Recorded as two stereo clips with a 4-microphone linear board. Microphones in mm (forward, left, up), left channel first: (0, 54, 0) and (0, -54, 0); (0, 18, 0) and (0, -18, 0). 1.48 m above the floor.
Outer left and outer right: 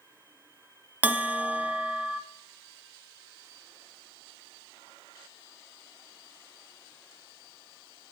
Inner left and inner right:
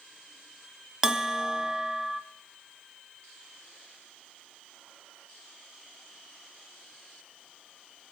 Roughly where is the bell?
Centre.